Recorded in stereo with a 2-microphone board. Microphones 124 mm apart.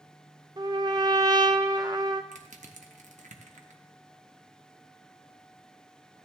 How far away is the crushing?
About 0.9 m.